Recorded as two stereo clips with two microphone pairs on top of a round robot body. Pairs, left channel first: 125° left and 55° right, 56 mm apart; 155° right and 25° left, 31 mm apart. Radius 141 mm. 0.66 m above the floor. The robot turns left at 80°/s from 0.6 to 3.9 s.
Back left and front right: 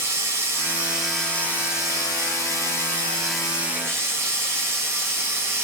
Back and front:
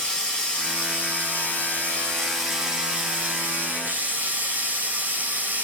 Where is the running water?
100° right, 6.5 m; by 5.6 s 5° right, 6.5 m.